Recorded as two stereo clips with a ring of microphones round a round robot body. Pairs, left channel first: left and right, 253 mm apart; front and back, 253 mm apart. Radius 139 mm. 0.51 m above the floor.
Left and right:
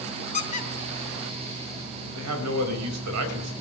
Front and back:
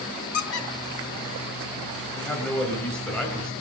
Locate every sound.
0.3 s a squeak: 25° left, 2 m
2.1 s a man speaking: 85° right, 3 m